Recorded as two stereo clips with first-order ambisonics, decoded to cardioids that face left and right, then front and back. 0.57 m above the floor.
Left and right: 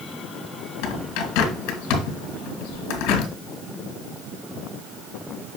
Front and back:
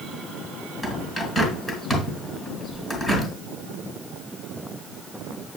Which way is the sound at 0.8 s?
80° left.